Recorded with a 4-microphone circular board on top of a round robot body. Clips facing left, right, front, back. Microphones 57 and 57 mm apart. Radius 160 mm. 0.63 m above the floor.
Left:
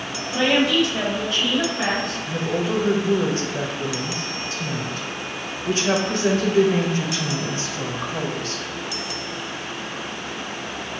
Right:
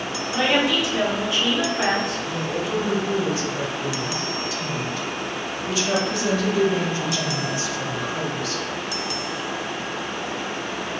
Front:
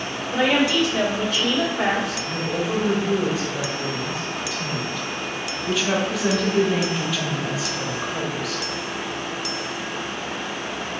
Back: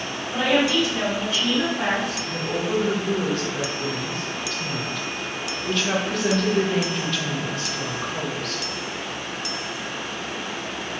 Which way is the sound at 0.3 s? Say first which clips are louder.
Left 2 dB, front 1 dB; 20° right.